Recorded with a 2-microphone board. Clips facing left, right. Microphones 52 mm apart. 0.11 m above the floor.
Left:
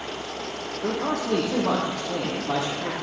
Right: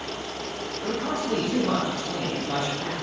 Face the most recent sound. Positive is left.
turn(degrees=60)  # may be behind; listen again after turning